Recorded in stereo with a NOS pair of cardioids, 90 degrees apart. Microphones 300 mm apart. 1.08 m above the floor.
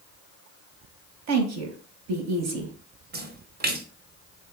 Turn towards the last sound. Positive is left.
turn(degrees=-35)